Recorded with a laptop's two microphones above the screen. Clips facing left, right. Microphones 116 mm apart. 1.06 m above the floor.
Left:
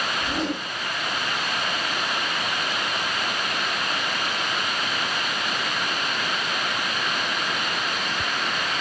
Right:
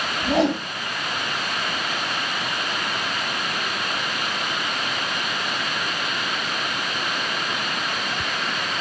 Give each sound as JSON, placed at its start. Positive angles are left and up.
{"t": 0.2, "sound": "a whoosh", "side_deg": -85, "distance_m": 7.0}